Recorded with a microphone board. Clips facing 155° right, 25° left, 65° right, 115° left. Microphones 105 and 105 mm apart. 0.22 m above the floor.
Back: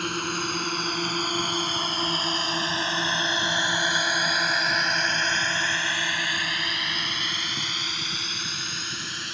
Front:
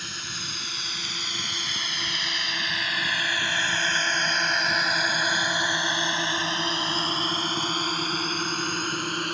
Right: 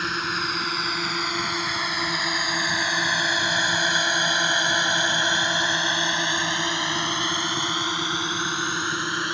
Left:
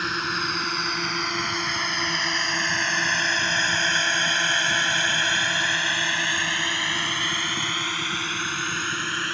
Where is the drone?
155° right; by 9.3 s straight ahead.